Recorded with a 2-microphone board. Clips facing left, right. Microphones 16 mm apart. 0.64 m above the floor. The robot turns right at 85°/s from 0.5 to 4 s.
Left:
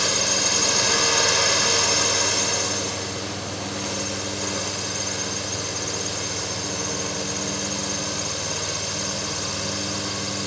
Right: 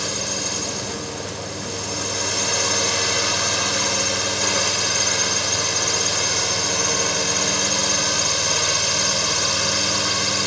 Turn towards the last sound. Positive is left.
turn(degrees=-40)